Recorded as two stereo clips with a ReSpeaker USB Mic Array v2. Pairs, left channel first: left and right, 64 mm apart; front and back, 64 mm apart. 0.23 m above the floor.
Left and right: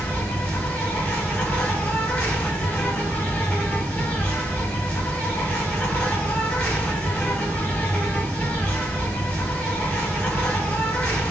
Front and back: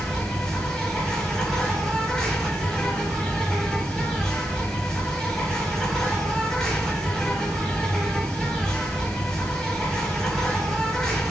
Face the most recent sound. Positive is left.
turn(degrees=65)